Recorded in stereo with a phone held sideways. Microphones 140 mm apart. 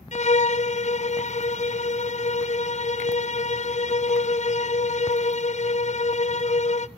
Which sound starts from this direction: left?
A violin, at 0.1 s.